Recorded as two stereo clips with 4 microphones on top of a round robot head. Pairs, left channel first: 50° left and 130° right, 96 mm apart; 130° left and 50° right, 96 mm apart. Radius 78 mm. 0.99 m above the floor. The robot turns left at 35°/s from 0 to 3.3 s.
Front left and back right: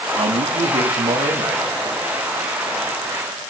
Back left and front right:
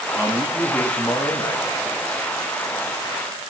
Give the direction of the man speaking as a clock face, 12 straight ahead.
4 o'clock.